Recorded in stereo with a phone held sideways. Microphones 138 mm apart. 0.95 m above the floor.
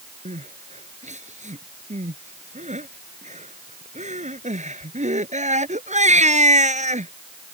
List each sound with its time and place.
0.2 s crying: 55° right (ahead or behind)